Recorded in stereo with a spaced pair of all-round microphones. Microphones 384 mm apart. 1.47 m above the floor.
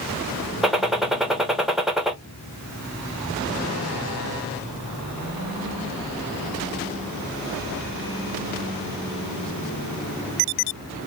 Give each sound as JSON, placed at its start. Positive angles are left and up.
{"t": 0.6, "sound": "a gunshot", "side_deg": 0, "distance_m": 0.6}